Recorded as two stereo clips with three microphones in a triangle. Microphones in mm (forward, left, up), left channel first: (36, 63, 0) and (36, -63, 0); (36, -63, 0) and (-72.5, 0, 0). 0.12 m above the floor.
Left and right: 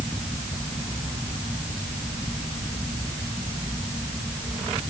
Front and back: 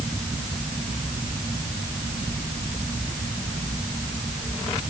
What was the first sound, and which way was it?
Only background noise.